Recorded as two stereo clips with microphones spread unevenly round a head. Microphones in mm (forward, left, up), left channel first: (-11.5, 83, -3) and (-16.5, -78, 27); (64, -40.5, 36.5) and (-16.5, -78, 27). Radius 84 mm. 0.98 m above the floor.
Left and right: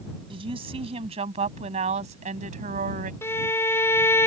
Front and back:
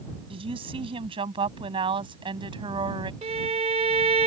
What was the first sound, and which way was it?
A woman speaking, 150° right.